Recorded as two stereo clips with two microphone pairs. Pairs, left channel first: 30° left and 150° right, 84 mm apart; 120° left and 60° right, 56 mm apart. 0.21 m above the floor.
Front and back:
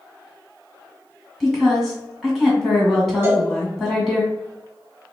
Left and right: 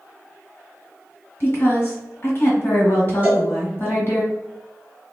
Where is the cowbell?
110° right, 1.9 m.